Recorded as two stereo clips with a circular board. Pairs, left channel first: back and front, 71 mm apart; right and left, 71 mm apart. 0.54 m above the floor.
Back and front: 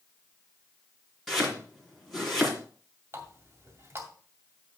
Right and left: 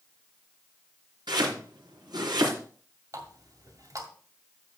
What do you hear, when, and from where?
1.3 s chopping: 90° left, 3.5 m
3.1 s a running tap: 55° left, 2.5 m